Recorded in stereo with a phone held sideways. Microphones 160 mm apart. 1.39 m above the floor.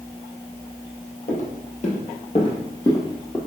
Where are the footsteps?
55° left (ahead or behind), 2.5 m; by 3.4 s 15° left (ahead or behind), 1.9 m.